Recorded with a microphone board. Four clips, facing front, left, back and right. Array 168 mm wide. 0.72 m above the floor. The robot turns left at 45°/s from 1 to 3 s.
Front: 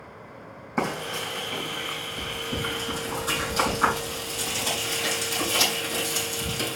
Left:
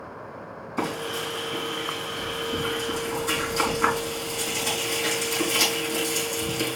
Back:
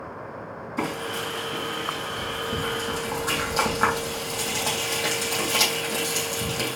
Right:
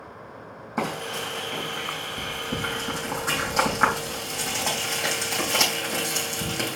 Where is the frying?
40° right, 3.5 m; by 6.8 s 130° right, 3.5 m.